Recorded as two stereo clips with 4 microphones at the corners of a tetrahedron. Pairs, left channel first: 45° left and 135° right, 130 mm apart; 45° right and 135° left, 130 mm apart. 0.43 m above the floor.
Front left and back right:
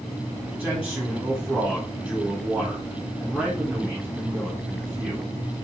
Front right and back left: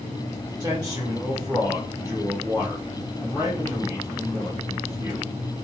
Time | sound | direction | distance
0.6 | a man speaking | 150° left | 1.6 m